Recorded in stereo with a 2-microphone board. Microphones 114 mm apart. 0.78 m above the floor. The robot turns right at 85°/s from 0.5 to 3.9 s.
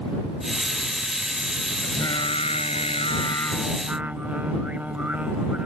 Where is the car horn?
No car horn in this recording.